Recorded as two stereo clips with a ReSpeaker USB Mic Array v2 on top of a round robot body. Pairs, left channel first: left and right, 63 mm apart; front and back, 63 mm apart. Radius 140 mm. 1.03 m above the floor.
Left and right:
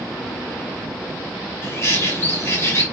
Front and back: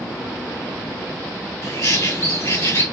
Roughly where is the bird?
Ahead left.